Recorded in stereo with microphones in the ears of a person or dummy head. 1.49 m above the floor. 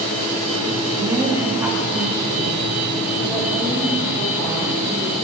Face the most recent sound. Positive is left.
turn(degrees=10)  # may be behind; listen again after turning